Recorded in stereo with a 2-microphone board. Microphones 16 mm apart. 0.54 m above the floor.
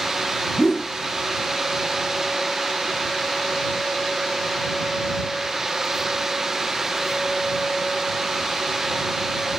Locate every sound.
0.6 s a whoosh: 30° left (ahead or behind)